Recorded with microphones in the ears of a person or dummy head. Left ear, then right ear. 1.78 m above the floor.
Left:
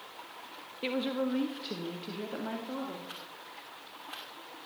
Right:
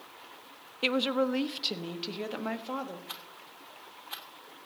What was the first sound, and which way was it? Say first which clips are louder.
A woman speaking: right 5 dB; 35° right (ahead or behind).